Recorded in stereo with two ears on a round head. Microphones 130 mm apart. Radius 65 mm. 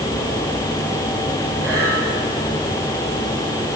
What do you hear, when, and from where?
1.6 s breathing: 20° right (ahead or behind), 8.5 m